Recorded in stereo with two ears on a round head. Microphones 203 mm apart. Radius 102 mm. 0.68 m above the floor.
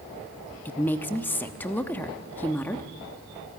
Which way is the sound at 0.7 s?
10° left (ahead or behind).